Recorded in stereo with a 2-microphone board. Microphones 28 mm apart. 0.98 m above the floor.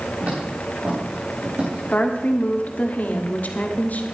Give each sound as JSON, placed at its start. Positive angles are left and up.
{"t": 0.2, "sound": "footsteps", "side_deg": -55, "distance_m": 6.0}
{"t": 1.9, "sound": "a woman speaking", "side_deg": 60, "distance_m": 1.7}